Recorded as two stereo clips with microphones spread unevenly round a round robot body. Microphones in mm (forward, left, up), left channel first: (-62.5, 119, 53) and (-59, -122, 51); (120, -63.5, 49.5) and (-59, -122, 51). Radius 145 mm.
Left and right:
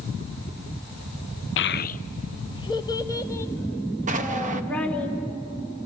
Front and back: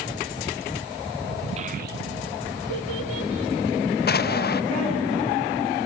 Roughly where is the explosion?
Ahead right.